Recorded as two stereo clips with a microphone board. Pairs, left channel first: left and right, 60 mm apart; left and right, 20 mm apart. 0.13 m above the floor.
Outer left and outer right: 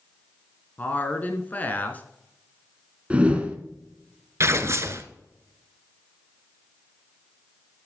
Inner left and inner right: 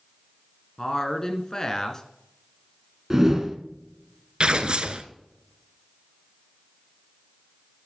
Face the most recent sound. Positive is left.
turn(degrees=-50)  # may be behind; listen again after turning